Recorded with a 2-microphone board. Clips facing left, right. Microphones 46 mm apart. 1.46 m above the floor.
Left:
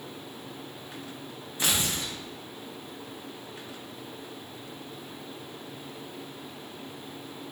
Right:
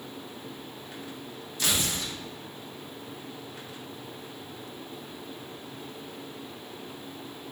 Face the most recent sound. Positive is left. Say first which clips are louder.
# even
turn(degrees=25)  # may be behind; listen again after turning